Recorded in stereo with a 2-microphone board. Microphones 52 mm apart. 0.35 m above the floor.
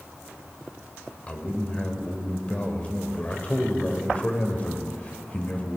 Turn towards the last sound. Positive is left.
turn(degrees=25)  # may be behind; listen again after turning